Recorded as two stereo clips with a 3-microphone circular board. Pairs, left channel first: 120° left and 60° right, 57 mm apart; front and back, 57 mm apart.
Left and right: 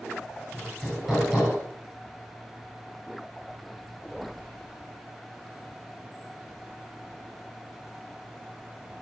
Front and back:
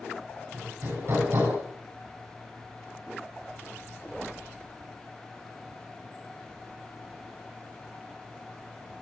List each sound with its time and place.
0.5 s hammering: 145° right, 7.5 m